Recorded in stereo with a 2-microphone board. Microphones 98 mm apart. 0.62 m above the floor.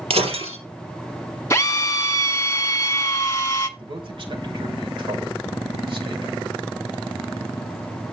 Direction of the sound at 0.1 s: 85° right.